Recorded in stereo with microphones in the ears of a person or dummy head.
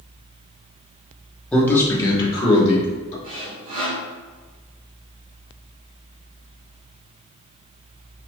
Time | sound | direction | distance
1.5 | a man speaking | 5° left (ahead or behind) | 1.0 m
3.2 | sawing | 40° right (ahead or behind) | 1.6 m